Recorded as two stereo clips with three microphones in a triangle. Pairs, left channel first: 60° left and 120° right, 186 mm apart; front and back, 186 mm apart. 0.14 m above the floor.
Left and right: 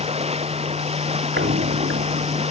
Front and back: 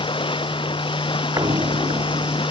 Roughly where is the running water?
Ahead right.